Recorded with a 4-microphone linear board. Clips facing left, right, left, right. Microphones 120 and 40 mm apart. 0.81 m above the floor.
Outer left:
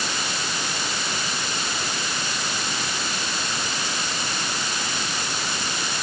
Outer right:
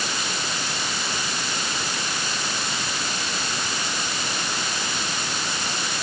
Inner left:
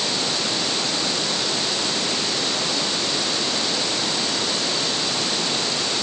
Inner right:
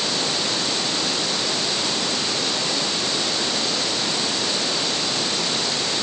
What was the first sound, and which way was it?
Only background noise.